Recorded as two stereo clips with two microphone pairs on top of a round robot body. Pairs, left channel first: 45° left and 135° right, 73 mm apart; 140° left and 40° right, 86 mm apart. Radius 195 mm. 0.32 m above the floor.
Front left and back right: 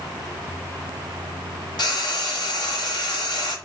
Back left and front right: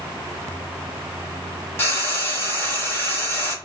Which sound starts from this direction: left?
Frying, at 1.8 s.